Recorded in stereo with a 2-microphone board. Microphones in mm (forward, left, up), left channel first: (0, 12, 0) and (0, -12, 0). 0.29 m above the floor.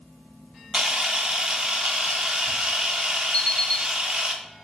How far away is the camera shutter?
About 0.7 m.